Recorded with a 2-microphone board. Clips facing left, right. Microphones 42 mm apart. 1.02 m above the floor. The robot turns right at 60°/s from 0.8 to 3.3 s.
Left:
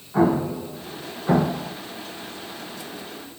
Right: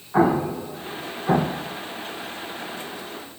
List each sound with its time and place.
0.1 s an explosion: 35° right (ahead or behind), 0.5 m; by 1.7 s 15° left (ahead or behind), 0.5 m